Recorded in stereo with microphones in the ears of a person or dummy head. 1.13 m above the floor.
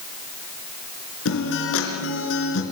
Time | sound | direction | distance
1.2 | a guitar | 80° left | 4 m